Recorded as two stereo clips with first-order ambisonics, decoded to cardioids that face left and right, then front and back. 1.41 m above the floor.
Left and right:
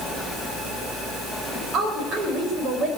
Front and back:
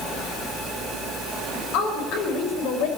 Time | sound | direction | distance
1.5 | a woman speaking | 30° right | 6 m